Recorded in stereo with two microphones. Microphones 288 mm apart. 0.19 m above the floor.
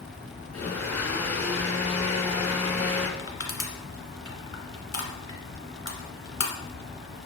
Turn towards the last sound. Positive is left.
turn(degrees=45)  # may be behind; listen again after turning